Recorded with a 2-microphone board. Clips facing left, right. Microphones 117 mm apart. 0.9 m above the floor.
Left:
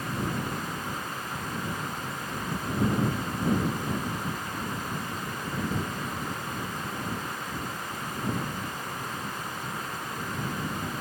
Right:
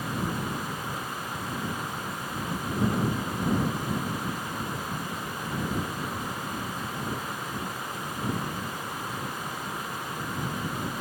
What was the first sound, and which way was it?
Only background noise.